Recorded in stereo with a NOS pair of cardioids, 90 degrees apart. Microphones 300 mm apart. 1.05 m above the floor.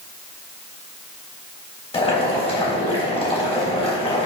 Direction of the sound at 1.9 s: 20° left.